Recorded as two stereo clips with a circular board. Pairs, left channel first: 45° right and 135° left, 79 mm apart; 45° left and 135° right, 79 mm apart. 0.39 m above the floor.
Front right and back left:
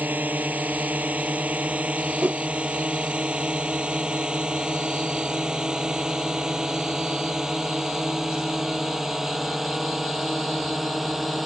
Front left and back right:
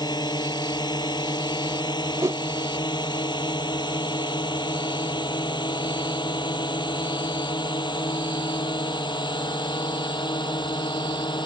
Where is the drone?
65° left; by 11.5 s 45° left.